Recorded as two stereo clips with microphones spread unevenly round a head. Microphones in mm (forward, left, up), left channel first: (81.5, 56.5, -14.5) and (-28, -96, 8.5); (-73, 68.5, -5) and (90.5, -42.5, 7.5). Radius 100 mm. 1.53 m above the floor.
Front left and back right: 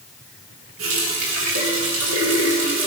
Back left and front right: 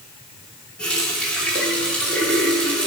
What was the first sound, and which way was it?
A running tap, 130° right.